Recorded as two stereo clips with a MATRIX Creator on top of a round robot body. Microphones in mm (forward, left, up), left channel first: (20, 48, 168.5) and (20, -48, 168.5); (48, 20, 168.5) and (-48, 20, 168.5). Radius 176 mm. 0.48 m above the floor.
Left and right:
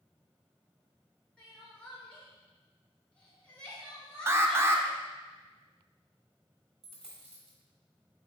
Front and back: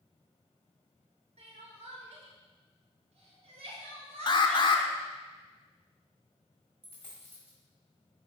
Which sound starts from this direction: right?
A dropped coin, at 6.8 s.